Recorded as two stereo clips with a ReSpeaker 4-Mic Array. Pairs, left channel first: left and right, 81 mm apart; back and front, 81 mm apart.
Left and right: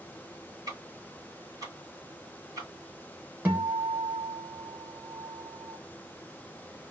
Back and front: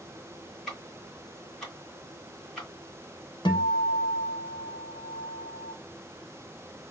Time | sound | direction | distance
0.7 | ticking | 95° right | 1.3 m
3.5 | a guitar | 165° right | 0.9 m